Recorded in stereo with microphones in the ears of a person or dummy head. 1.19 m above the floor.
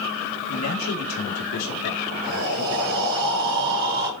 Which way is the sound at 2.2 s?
60° right (ahead or behind).